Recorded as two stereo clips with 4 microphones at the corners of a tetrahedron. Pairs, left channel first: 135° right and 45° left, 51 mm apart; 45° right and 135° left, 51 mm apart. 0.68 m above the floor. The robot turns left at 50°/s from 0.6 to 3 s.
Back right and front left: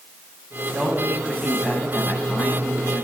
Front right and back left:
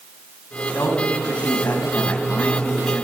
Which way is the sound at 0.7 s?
20° right.